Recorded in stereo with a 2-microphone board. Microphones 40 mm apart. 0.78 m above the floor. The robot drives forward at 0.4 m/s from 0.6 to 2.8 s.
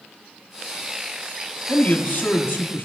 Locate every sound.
1.7 s a man speaking: 50° left (ahead or behind), 1.5 m; by 2.9 s 60° left (ahead or behind), 1.3 m